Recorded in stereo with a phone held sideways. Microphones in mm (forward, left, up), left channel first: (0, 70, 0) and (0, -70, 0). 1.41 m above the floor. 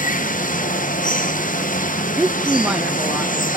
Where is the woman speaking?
5° right (ahead or behind), 0.7 m.